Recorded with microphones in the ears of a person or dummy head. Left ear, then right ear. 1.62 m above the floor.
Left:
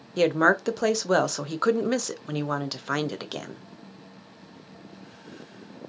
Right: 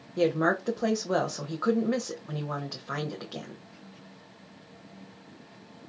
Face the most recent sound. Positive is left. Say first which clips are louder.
# left 5 dB
turn(degrees=65)  # may be behind; listen again after turning